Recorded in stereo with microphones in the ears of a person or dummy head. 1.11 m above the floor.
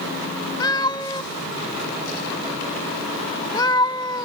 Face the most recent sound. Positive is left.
turn(degrees=25)  # may be behind; listen again after turning